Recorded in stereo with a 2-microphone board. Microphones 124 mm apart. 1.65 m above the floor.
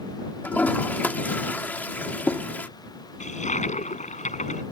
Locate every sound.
0.4 s a toilet flushing: 15° left (ahead or behind)
3.2 s a toilet flushing: 70° left (ahead or behind)